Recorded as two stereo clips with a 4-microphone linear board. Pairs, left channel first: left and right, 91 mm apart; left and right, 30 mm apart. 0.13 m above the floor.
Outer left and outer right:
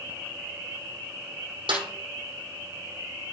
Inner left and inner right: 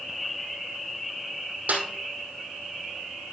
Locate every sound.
1.7 s a snare drum: 75° right (ahead or behind), 2.5 m